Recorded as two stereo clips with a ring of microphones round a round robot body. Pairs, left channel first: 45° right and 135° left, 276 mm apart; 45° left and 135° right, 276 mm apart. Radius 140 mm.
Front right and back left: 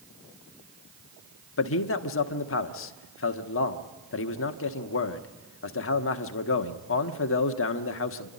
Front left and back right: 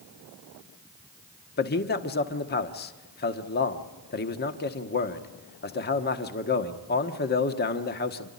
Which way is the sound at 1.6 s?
5° right.